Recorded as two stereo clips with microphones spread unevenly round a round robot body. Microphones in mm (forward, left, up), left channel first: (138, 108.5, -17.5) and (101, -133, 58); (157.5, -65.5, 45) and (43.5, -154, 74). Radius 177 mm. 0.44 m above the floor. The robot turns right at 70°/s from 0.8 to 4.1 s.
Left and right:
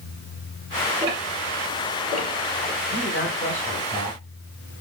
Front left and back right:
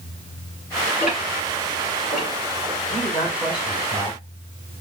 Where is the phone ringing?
No phone ringing in this recording.